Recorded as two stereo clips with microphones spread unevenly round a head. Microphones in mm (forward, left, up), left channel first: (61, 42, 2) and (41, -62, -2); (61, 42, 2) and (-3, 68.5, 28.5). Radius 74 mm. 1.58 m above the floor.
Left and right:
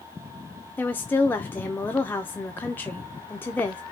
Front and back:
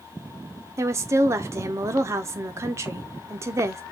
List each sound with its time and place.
0.8 s a woman speaking: 155° left, 0.5 m